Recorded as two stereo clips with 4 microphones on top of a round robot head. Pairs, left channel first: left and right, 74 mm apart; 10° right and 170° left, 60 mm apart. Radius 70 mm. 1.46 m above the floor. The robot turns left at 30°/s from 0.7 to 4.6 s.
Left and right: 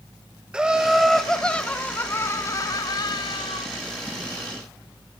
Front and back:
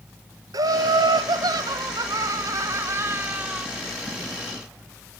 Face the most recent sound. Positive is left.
turn(degrees=75)